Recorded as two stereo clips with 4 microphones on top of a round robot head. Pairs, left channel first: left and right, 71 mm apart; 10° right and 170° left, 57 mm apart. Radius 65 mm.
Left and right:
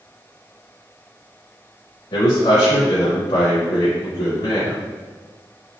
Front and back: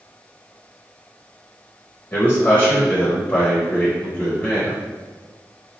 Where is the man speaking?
55° left, 0.9 m.